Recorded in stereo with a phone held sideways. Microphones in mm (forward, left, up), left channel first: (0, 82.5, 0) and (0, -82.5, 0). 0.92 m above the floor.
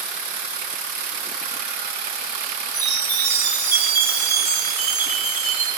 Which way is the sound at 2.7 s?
20° right (ahead or behind).